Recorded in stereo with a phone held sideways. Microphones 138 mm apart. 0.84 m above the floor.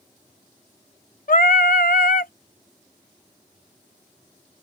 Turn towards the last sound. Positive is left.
turn(degrees=85)